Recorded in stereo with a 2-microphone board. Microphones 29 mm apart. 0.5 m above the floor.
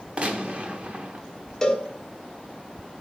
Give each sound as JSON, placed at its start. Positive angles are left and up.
{"t": 0.2, "sound": "a gunshot", "side_deg": -45, "distance_m": 1.0}
{"t": 1.6, "sound": "a cowbell", "side_deg": 20, "distance_m": 1.2}